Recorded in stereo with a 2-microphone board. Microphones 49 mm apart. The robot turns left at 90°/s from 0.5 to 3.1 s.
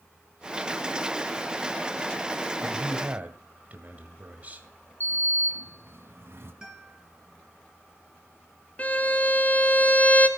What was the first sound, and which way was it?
A man speaking, 45° right.